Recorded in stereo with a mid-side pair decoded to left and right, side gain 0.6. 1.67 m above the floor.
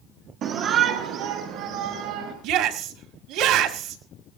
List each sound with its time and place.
0.4 s a shout: 60° right, 0.8 m; by 2.3 s 80° right, 3 m
2.4 s a shout: 70° right, 2 m